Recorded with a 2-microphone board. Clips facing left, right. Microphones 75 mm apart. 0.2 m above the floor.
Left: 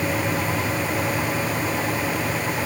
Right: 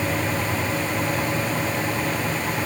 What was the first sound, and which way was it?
Only background noise.